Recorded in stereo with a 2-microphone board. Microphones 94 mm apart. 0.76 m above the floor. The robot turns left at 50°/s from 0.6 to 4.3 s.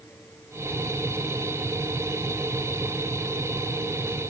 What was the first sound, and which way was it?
Only background noise.